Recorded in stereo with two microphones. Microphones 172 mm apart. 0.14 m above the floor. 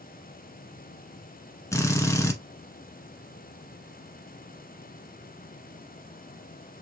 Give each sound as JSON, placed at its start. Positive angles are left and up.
{"t": 1.7, "sound": "a drill", "side_deg": 15, "distance_m": 0.9}